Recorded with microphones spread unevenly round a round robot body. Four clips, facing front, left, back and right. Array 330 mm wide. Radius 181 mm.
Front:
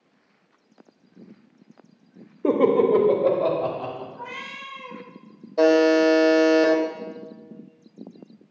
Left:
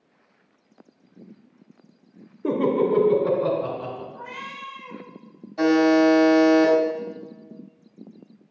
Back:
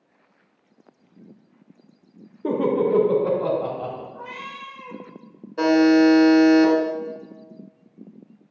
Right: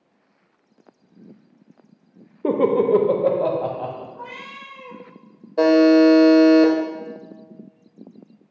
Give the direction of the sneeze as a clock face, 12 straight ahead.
No sneeze in this recording.